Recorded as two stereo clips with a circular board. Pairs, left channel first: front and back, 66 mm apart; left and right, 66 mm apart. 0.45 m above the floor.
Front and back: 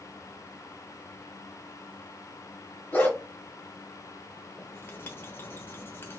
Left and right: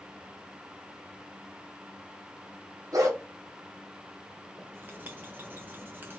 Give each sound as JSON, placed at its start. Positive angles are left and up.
{"t": 2.9, "sound": "a dog barking", "azimuth_deg": -65, "distance_m": 1.6}
{"t": 4.6, "sound": "writing", "azimuth_deg": -45, "distance_m": 0.9}